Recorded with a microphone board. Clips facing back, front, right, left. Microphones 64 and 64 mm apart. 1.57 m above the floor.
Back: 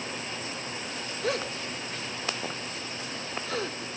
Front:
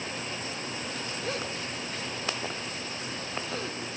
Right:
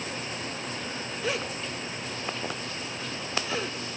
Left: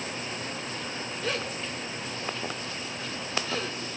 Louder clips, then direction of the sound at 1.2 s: Back 6 dB, right 1 dB; 170° right.